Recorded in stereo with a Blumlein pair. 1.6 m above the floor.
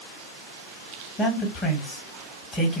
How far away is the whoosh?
I don't hear a whoosh.